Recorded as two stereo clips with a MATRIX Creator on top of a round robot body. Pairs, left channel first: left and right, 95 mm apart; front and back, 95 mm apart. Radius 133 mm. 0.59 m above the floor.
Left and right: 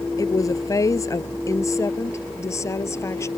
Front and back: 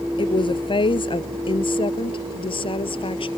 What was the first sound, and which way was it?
A woman speaking, 35° left.